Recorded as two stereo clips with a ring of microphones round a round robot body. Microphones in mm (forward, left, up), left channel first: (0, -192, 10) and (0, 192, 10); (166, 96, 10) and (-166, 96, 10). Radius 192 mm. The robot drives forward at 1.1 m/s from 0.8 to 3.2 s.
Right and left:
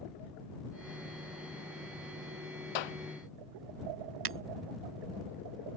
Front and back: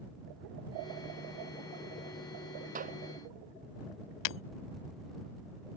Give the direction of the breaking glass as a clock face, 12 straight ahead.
11 o'clock.